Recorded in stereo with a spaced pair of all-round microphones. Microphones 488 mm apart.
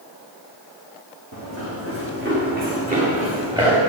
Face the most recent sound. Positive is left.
turn(degrees=-10)  # may be behind; listen again after turning